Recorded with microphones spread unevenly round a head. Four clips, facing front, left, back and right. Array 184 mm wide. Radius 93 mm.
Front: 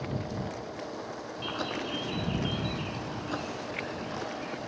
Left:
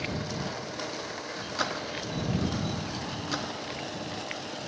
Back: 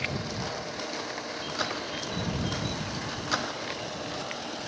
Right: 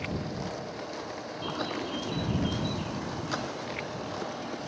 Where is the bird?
75° right.